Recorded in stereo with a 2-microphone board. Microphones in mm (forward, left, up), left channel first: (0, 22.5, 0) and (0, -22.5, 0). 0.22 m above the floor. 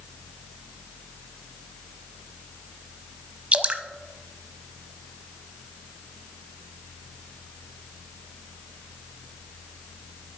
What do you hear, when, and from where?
3.5 s dripping: 25° right (ahead or behind), 0.8 m